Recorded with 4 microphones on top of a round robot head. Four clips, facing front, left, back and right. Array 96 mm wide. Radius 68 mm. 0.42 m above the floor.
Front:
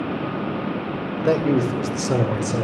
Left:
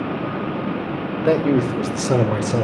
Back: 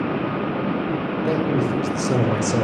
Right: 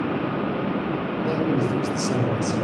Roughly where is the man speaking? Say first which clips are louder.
Left 7 dB, front 4 dB; ahead left.